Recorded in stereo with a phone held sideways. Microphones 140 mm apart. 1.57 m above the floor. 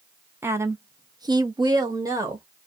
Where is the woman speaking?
15° right (ahead or behind), 0.8 m; by 2.5 s 20° right (ahead or behind), 0.8 m.